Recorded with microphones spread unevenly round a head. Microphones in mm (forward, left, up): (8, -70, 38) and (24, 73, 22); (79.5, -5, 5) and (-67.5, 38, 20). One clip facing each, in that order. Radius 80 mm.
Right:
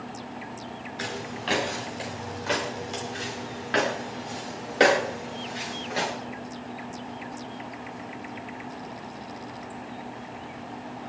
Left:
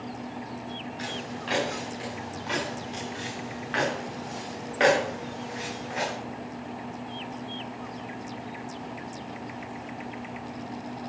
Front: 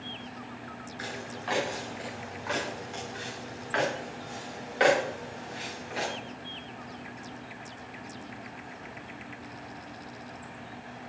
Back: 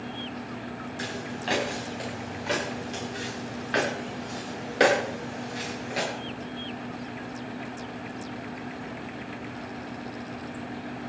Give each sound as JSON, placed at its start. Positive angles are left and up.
{"t": 1.0, "sound": "footsteps", "azimuth_deg": -135, "distance_m": 9.5}